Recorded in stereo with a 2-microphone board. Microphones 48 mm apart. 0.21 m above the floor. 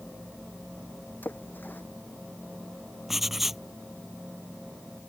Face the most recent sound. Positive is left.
turn(degrees=-5)  # may be behind; listen again after turning